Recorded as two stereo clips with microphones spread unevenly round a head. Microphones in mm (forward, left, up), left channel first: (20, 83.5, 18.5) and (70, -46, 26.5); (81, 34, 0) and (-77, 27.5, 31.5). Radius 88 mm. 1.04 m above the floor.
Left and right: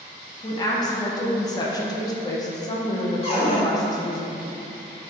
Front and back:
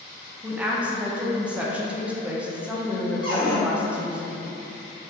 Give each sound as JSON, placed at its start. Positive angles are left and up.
{"t": 0.4, "sound": "a woman speaking", "azimuth_deg": 90, "distance_m": 0.5}
{"t": 3.2, "sound": "a cupboard door", "azimuth_deg": 65, "distance_m": 1.1}